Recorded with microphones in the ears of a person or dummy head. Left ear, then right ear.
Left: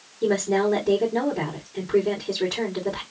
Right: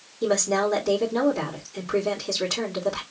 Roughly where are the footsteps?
No footsteps in this recording.